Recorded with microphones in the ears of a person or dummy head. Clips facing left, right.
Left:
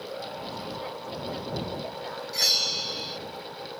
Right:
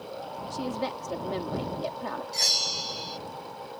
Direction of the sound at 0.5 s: 85° right.